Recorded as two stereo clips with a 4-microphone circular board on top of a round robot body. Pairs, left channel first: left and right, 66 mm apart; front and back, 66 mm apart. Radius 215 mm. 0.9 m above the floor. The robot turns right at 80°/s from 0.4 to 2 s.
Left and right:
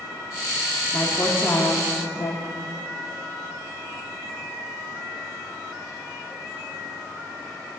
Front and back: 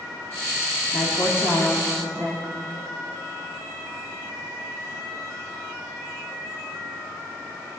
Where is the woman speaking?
10° right, 1.7 m; by 2.4 s 80° left, 1.7 m.